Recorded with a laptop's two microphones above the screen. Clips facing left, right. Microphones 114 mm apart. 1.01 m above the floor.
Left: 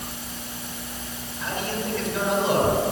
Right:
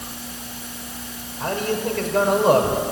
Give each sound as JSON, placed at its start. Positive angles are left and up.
{"t": 1.4, "sound": "a man speaking", "side_deg": -50, "distance_m": 4.5}